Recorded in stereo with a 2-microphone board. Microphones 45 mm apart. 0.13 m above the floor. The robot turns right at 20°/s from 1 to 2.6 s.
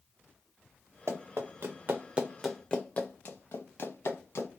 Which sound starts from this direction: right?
Running footsteps, at 1.1 s.